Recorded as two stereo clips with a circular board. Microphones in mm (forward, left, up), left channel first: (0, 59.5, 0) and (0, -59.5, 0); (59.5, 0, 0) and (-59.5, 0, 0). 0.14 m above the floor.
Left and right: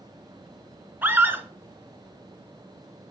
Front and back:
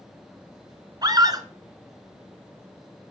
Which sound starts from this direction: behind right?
A scream, at 1.0 s.